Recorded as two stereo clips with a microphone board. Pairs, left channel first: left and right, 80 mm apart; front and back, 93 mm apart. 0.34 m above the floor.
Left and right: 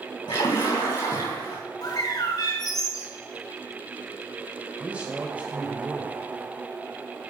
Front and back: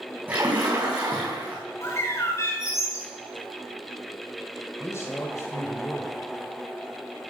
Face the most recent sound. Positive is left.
turn(degrees=-30)